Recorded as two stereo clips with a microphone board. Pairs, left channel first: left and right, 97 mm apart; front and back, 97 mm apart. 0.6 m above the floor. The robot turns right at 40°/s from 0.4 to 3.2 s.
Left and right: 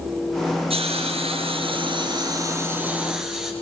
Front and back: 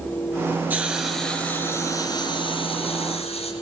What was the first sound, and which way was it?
A hiss, 110° right.